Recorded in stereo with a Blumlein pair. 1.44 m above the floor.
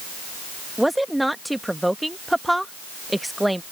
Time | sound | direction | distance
0.8 | a woman speaking | 5° right | ?